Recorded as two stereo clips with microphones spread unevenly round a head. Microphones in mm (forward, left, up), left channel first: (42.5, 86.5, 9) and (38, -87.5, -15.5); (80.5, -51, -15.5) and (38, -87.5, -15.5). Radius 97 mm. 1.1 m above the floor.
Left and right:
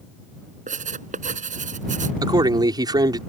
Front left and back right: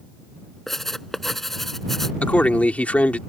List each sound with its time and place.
0.7 s writing: 45° right
2.2 s a man speaking: 25° right